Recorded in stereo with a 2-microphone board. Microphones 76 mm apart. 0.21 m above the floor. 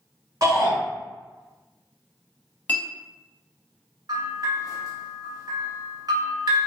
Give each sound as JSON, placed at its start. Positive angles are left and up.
{"t": 0.4, "sound": "a shout", "side_deg": -55, "distance_m": 1.9}
{"t": 2.7, "sound": "a clink", "side_deg": 20, "distance_m": 0.7}
{"t": 4.1, "sound": "a bell", "side_deg": -65, "distance_m": 1.4}